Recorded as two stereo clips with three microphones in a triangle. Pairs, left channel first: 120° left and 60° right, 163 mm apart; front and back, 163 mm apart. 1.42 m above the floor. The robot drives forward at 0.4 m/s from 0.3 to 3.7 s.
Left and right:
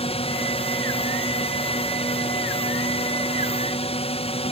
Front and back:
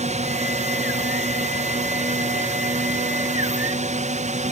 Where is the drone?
160° left.